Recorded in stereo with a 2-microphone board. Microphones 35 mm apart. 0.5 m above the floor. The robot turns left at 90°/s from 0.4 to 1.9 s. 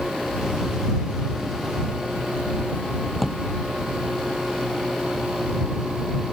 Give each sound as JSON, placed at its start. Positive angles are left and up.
{"t": 3.1, "sound": "a drawer", "side_deg": 5}